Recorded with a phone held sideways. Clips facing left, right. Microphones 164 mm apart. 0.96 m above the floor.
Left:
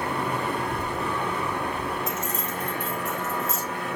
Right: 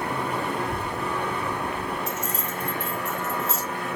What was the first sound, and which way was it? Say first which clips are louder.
A child speaking: even; 25° right (ahead or behind).